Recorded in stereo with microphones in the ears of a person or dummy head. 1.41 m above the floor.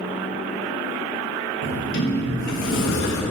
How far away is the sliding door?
About 0.9 m.